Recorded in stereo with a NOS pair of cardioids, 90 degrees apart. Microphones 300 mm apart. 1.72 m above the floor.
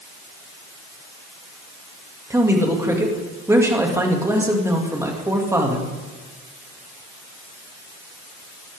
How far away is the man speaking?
About 2.5 m.